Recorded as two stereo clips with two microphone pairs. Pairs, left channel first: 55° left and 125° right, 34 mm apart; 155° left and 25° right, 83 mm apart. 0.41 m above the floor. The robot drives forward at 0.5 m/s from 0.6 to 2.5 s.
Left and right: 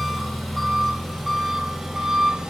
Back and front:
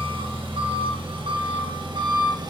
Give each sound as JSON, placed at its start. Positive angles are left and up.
{"t": 0.0, "sound": "an engine running", "azimuth_deg": -35, "distance_m": 2.0}